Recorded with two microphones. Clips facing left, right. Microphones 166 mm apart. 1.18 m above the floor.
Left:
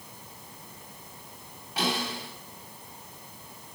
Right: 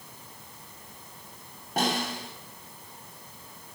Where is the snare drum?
50° right (ahead or behind), 7 m.